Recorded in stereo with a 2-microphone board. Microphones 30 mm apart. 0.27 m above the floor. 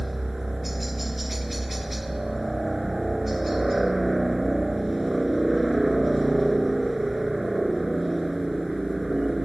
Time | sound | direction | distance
0.0 | a helicopter | 5° right (ahead or behind) | ?